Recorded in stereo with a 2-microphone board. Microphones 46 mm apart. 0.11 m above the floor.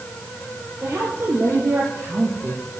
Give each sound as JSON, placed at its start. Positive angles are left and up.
{"t": 0.8, "sound": "a woman speaking", "side_deg": -60, "distance_m": 3.5}